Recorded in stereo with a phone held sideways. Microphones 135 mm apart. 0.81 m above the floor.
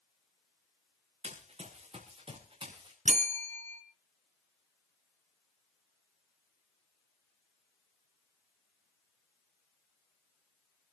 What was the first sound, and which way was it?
Running footsteps, 50° right (ahead or behind).